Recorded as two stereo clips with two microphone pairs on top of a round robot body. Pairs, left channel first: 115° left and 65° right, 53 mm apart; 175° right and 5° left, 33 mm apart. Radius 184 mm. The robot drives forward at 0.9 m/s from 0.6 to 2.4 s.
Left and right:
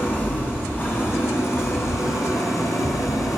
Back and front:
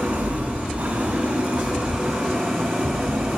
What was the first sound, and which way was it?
An engine running, 55° left.